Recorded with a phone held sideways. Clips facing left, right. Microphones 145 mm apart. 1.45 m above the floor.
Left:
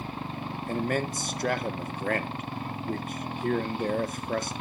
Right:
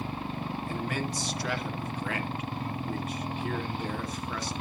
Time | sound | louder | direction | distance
0.7 | a man speaking | left 7 dB | 50° left (ahead or behind) | 1.0 m